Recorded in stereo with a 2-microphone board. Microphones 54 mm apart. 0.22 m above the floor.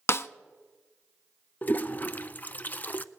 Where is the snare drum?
50° left (ahead or behind), 0.5 m.